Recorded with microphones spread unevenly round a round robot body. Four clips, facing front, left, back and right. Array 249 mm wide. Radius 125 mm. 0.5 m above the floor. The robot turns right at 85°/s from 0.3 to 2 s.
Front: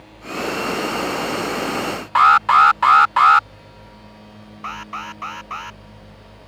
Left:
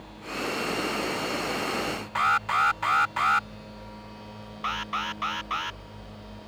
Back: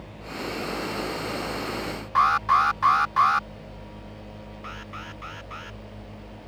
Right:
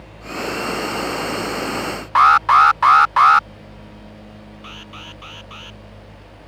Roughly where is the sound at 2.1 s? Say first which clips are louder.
Right 13 dB, front 8 dB; ahead right.